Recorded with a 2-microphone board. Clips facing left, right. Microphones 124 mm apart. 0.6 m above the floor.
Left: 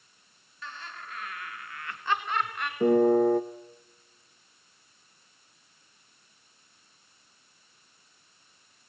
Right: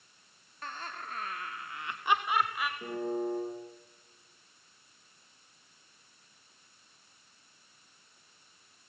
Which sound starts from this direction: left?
A piano, at 2.8 s.